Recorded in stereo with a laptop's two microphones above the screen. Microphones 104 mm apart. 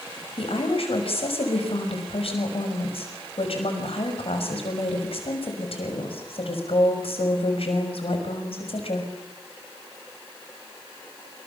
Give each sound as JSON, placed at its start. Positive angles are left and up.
{"t": 0.4, "sound": "a woman speaking", "side_deg": 65, "distance_m": 6.0}